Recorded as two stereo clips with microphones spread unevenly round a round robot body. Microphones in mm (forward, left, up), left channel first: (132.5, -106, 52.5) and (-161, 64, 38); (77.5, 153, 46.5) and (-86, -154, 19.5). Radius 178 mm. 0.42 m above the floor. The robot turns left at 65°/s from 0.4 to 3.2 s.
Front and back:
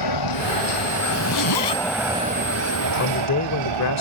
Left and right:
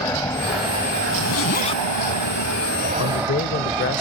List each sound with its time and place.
0.0 s an aircraft: 20° right; by 4.0 s 160° left
1.1 s a zipper: 25° left; by 1.8 s 20° right
3.0 s a man speaking: 20° left; by 4.0 s 5° left